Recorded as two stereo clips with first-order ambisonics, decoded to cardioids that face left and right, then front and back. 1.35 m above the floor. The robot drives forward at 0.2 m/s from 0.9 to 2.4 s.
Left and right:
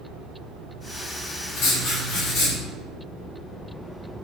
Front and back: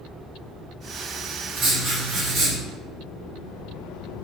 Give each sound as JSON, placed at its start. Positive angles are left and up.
{"t": 1.6, "sound": "writing", "azimuth_deg": 125, "distance_m": 0.9}